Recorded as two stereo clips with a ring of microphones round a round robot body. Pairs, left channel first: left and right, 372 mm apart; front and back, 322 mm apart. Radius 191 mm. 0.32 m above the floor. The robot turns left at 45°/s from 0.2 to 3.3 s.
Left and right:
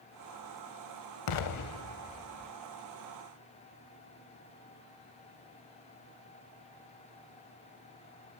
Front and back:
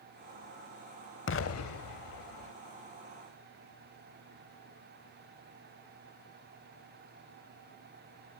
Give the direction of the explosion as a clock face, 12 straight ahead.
10 o'clock.